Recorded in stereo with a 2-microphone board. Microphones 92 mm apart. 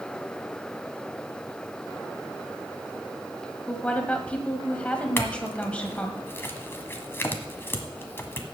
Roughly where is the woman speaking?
Centre.